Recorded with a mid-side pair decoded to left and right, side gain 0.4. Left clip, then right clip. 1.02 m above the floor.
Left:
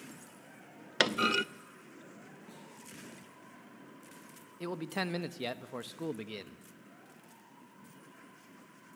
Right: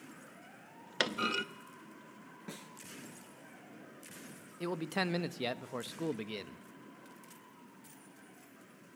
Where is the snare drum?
70° right, 4 m.